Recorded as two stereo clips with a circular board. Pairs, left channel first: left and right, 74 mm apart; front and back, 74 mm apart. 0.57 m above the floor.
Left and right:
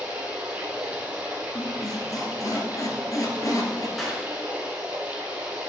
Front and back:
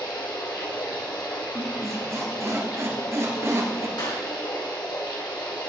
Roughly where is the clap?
Ahead.